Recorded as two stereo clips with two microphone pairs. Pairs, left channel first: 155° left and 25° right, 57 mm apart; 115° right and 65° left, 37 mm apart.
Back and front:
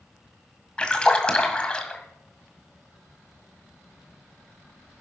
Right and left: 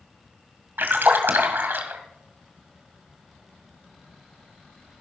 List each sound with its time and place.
0.8 s a splash: 85° left, 2 m